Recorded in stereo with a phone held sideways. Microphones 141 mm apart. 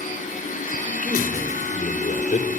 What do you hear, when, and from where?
0.0 s a machine running: 70° left (ahead or behind), 6.5 m
1.0 s a man speaking: 75° left (ahead or behind), 4.5 m